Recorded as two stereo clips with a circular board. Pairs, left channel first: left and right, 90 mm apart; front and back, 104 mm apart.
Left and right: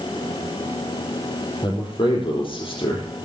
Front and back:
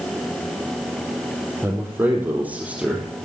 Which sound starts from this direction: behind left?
A man speaking, at 1.6 s.